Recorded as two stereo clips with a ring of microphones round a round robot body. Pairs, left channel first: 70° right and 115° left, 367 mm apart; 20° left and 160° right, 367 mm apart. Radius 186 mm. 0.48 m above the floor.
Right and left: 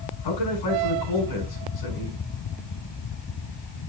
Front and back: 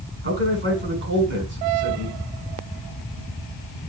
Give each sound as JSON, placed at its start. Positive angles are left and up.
{"t": 0.2, "sound": "a man speaking", "azimuth_deg": -95, "distance_m": 5.0}